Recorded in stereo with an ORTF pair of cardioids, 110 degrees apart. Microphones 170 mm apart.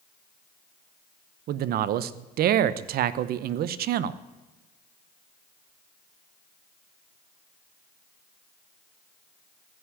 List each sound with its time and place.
1.5 s a man speaking: 65° right, 0.8 m